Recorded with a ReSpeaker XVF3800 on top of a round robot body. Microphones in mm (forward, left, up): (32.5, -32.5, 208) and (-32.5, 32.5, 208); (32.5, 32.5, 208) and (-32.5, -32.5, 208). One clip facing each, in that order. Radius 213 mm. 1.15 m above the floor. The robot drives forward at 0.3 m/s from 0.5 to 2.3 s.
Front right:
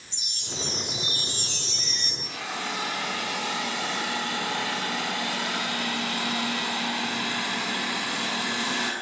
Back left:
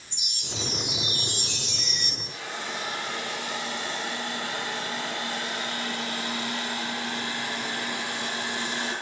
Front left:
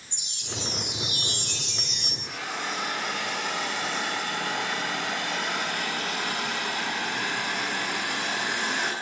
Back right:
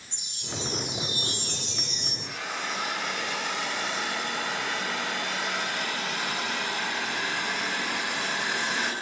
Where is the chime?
10° left, 6.5 m; by 2.1 s 15° left, 6 m.